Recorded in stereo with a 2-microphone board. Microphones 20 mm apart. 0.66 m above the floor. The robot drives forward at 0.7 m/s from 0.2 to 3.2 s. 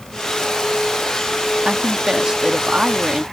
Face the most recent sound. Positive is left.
turn(degrees=-30)  # may be behind; listen again after turning